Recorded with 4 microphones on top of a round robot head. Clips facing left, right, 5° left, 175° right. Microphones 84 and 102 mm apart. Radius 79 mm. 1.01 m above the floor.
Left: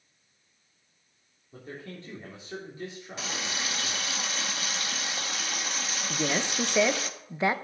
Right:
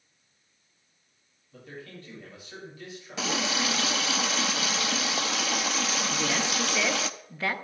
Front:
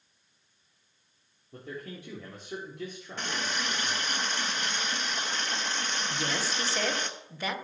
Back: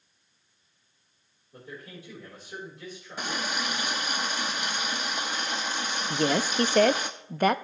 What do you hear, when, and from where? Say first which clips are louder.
1.5 s a man speaking: left 2 dB, front 3 dB; 30° left, 3.5 m
3.2 s a running tap: right 7 dB, back 2 dB; 95° right, 0.6 m
6.1 s a woman speaking: right 1 dB, back 11 dB; 155° left, 0.8 m